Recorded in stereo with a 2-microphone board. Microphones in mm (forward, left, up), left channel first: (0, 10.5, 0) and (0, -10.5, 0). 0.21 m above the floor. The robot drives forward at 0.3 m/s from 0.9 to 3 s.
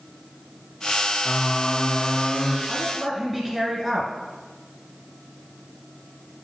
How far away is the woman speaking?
About 1.4 m.